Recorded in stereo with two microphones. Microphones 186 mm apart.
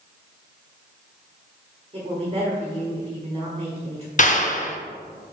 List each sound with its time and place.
1.9 s a woman speaking: 35° right (ahead or behind), 1.4 m
4.2 s a clap: 45° left (ahead or behind), 0.7 m